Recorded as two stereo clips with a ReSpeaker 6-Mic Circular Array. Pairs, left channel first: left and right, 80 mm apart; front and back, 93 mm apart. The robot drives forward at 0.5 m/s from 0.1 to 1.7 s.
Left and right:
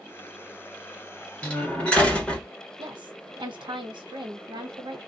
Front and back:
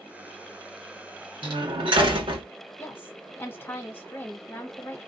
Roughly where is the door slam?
Behind.